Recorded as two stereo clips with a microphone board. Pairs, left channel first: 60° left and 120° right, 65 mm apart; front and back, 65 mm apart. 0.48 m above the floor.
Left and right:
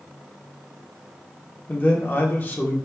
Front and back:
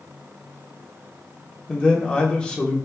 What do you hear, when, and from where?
1.7 s a man speaking: 60° left, 0.8 m